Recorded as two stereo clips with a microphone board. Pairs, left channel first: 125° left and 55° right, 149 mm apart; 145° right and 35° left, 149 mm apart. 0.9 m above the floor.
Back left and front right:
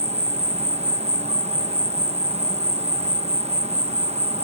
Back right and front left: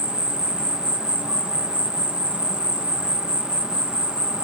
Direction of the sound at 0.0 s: 50° right.